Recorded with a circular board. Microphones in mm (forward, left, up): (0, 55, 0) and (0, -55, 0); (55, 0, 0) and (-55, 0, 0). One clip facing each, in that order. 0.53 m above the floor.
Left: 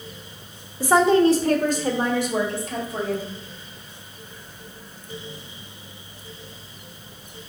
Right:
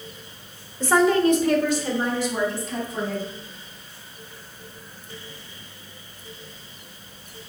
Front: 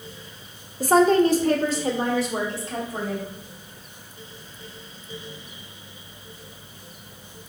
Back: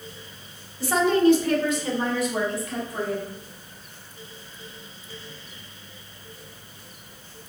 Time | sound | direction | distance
0.8 | a woman speaking | 15° left | 1.0 m